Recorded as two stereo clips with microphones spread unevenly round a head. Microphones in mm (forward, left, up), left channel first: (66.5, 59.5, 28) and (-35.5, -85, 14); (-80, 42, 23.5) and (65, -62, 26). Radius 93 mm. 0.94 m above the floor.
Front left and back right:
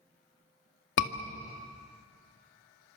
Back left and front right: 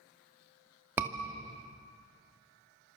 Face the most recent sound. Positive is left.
turn(degrees=45)